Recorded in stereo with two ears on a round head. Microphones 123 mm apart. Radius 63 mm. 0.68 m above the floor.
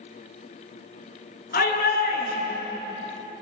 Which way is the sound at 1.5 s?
80° left.